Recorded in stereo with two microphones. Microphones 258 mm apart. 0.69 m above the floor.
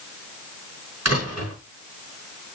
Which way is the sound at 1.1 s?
80° right.